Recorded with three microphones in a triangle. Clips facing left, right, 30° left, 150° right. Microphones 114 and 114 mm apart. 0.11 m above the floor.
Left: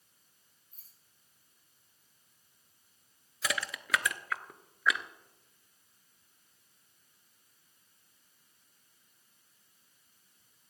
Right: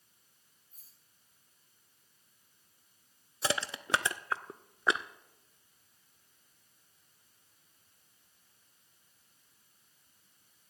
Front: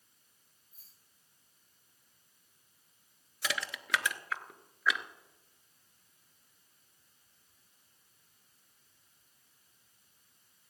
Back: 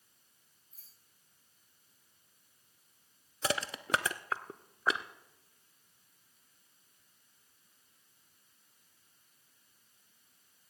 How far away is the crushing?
About 0.5 m.